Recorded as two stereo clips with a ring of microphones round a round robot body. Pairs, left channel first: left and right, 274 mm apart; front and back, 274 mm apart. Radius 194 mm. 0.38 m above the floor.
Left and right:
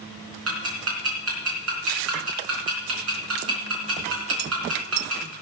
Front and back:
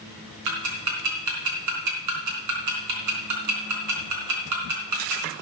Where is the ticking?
145° right, 3.5 m.